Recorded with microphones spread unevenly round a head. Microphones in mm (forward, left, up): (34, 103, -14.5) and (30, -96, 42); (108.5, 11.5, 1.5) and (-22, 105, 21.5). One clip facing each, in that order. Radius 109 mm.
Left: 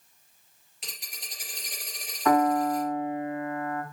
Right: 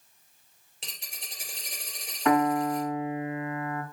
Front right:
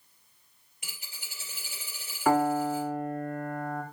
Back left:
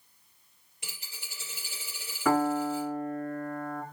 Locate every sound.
0.8 s a dropped coin: 150° right, 3.5 m
2.2 s a piano: 170° right, 5.5 m